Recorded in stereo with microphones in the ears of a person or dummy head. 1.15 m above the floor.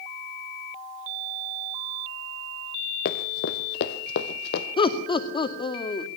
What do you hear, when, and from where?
3.0 s running footsteps: 45° left (ahead or behind), 1.6 m; by 4.7 s 55° left (ahead or behind), 2 m
4.8 s laughter: 30° left (ahead or behind), 2 m